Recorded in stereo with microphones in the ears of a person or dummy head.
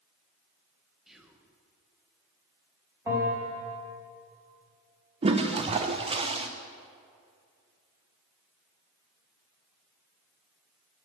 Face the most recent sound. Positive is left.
turn(degrees=-25)  # may be behind; listen again after turning